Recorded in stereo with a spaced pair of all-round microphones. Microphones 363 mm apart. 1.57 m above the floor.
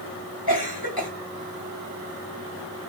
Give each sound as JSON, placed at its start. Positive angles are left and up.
{"t": 0.5, "sound": "a cough", "side_deg": 80, "distance_m": 4.0}